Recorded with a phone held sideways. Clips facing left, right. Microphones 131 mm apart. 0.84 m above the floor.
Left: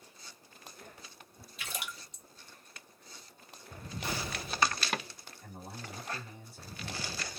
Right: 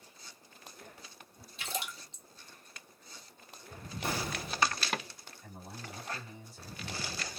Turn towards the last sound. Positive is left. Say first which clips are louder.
# left 1 dB
turn(degrees=55)  # may be behind; listen again after turning